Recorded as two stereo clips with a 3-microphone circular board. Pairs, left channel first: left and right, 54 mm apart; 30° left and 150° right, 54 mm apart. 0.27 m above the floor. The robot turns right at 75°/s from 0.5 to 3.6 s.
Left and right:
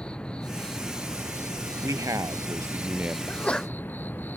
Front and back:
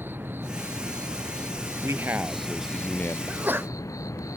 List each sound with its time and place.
0.0 s an insect: 160° left; by 4.4 s 35° left
1.8 s a man speaking: 120° right; by 3.2 s 20° right
3.3 s a sneeze: 145° left; by 3.7 s 170° left